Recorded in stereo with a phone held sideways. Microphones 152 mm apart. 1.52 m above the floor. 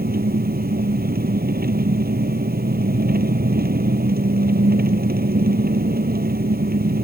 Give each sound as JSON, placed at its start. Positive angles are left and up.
{"t": 0.0, "sound": "an engine running", "side_deg": -85}